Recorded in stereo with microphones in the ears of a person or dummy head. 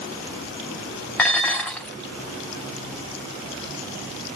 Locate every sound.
1.2 s dishes clattering: 10° left (ahead or behind), 0.5 m